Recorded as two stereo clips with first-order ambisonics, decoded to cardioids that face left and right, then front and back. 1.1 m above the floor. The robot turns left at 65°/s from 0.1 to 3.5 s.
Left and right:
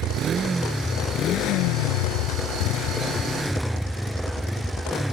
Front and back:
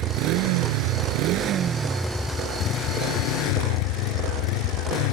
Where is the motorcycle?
140° right; by 5.1 s straight ahead.